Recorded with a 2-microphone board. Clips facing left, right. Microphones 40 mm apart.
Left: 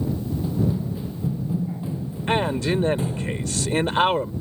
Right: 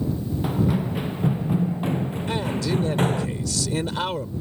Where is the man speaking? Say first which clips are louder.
Left 5 dB; 40° left (ahead or behind).